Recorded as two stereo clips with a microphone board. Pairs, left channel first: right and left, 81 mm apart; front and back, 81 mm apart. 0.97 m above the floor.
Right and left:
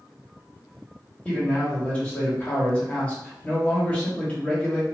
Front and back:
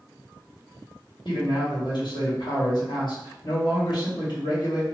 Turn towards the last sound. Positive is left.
turn(degrees=-20)